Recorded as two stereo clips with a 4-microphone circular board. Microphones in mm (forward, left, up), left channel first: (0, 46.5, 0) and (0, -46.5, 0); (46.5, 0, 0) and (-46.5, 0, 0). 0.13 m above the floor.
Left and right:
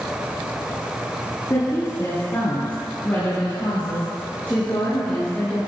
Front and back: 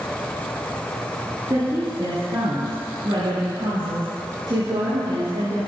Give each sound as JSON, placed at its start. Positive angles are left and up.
{"t": 1.5, "sound": "a woman speaking", "azimuth_deg": 140, "distance_m": 2.5}